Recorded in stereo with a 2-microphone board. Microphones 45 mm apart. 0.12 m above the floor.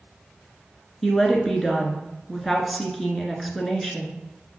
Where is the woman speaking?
5° left (ahead or behind), 1.4 m.